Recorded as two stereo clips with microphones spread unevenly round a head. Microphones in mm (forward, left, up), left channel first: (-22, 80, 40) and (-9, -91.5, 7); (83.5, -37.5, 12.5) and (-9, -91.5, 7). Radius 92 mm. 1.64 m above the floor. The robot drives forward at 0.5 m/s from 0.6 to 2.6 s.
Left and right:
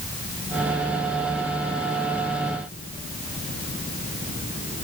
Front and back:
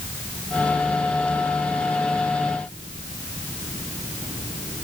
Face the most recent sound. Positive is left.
No sound to turn to.